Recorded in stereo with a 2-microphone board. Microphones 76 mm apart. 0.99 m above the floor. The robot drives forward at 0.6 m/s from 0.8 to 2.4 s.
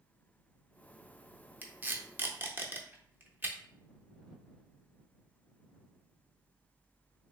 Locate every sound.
1.6 s tape being pulled: 25° right (ahead or behind), 0.7 m